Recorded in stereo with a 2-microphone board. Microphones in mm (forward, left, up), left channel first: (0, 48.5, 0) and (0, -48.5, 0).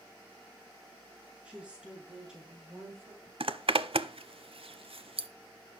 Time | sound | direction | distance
1.4 | a woman speaking | 10° right (ahead or behind) | 5 m
3.4 | a zipper | 70° right (ahead or behind) | 0.7 m